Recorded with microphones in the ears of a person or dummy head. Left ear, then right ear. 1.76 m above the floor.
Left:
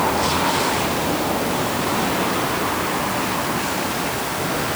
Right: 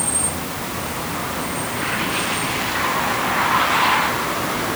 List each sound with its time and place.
Only background noise.